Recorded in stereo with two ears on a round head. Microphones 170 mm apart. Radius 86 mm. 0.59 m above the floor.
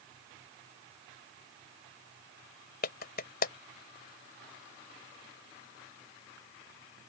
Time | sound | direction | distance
2.8 | a clap | 55° left (ahead or behind) | ?